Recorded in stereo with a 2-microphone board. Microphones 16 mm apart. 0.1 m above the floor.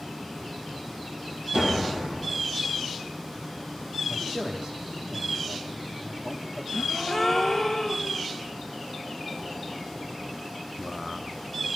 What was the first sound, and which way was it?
A door slam, 75° right (ahead or behind).